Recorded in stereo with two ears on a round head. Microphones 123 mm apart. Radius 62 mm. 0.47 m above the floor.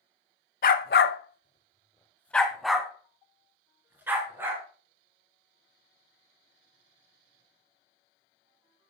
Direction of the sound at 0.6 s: 70° left (ahead or behind).